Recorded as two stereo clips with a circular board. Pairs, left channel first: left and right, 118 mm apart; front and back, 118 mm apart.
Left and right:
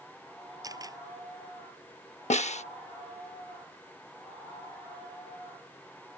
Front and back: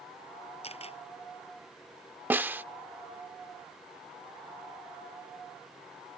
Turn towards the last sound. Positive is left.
turn(degrees=105)